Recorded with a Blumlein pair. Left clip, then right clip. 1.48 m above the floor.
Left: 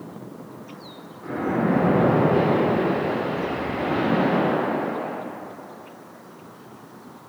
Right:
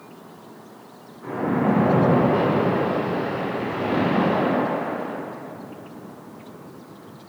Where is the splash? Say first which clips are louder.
Right 1 dB; 70° right, 1.1 m.